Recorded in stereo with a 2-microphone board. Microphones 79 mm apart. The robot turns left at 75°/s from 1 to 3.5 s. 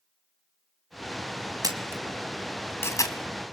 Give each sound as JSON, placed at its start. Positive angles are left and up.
{"t": 1.6, "sound": "a camera shutter", "side_deg": -50, "distance_m": 2.0}